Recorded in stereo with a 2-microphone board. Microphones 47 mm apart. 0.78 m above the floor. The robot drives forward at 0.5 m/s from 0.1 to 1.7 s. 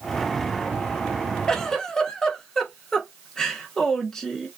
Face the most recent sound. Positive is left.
turn(degrees=15)  # may be behind; listen again after turning